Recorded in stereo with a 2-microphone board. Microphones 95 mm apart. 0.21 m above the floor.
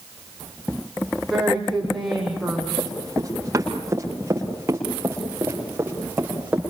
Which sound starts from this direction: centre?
A woman speaking, at 1.3 s.